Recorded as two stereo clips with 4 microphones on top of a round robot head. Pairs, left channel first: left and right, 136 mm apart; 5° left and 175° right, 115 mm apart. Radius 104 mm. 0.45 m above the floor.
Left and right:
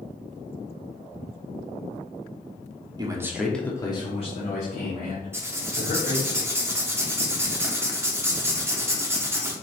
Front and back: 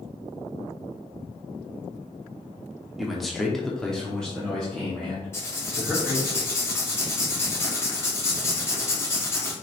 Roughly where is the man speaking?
Right.